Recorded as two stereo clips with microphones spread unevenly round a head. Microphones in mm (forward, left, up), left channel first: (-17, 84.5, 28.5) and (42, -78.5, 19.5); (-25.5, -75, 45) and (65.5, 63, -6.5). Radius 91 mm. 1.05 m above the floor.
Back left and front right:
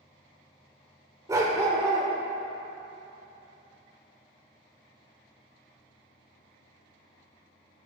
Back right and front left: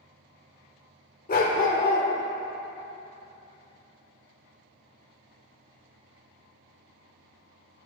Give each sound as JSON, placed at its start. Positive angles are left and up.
{"t": 1.3, "sound": "a dog barking", "azimuth_deg": -145, "distance_m": 1.2}